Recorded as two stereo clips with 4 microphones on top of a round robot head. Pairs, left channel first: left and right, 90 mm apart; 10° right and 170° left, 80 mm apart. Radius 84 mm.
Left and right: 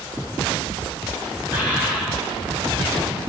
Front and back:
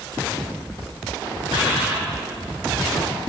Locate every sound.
1.5 s a bird: 15° right, 4 m